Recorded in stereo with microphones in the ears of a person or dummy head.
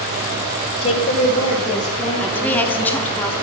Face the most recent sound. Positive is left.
turn(degrees=10)  # may be behind; listen again after turning